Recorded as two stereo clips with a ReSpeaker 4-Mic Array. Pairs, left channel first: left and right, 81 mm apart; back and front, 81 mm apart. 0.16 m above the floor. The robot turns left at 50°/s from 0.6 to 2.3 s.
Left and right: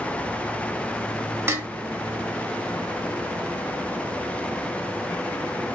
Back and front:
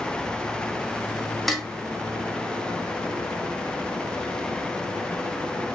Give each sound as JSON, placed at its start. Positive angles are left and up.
{"t": 1.5, "sound": "dishes clattering", "azimuth_deg": -95, "distance_m": 0.8}